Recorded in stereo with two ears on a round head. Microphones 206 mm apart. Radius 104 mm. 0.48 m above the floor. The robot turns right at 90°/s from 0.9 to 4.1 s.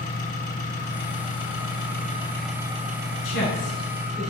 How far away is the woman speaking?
About 6 m.